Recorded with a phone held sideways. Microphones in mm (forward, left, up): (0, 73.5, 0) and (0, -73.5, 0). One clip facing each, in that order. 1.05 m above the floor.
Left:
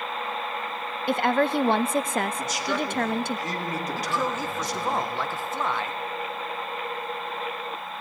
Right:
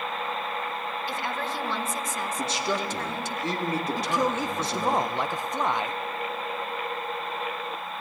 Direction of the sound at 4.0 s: 15° right (ahead or behind).